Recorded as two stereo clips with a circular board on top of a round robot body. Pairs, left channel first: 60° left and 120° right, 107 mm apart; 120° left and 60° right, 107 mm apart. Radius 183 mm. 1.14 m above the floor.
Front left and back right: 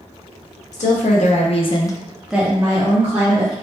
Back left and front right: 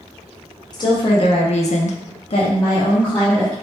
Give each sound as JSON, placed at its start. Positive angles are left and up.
{"t": 0.7, "sound": "a woman speaking", "azimuth_deg": 65, "distance_m": 1.2}